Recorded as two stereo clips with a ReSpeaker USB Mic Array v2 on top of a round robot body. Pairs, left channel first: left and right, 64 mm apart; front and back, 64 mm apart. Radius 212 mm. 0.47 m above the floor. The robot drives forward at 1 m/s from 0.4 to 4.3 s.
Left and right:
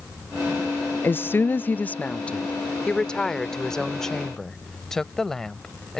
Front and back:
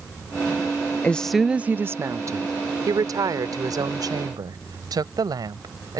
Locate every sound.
1.0 s a woman speaking: 55° left; by 6.0 s 170° left